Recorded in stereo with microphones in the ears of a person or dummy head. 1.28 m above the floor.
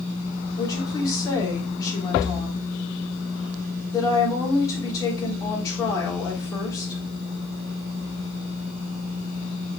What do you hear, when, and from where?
0.6 s a woman speaking: 20° left (ahead or behind), 3.5 m